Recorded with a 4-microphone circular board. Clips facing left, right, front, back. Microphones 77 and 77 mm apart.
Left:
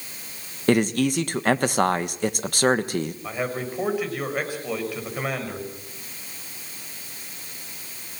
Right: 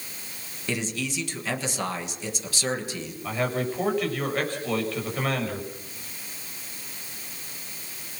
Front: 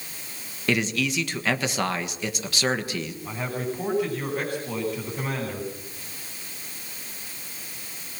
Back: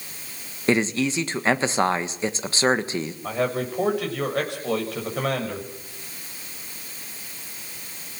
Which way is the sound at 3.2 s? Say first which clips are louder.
Right 1 dB, back 7 dB; 170° left.